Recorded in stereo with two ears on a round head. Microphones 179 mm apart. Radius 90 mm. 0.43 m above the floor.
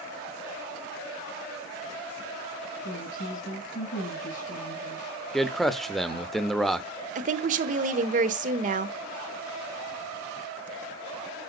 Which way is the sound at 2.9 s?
40° left (ahead or behind).